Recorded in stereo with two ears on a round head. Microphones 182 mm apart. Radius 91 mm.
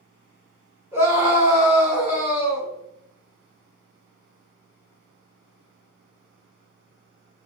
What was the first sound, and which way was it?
A scream, 10° right (ahead or behind).